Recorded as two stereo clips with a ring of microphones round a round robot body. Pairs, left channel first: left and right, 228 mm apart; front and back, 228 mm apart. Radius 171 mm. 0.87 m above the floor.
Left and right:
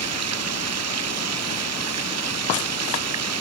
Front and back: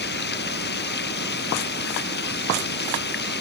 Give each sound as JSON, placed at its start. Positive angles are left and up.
{"t": 0.0, "sound": "running water", "azimuth_deg": -60}